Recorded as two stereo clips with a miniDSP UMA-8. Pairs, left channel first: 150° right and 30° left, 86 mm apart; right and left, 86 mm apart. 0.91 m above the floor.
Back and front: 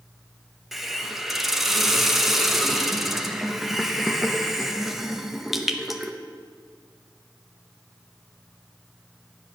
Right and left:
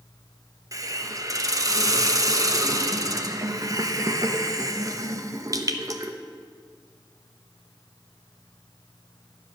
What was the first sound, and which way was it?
A hiss, 115° left.